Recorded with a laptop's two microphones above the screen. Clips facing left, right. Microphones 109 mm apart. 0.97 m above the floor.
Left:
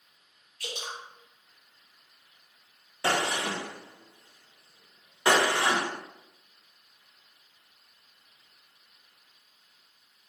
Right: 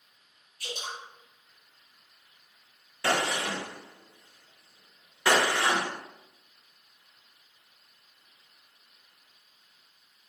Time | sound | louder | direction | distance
0.6 | dripping | even | 80° left | 1.2 m
3.0 | a gunshot | even | 20° left (ahead or behind) | 0.9 m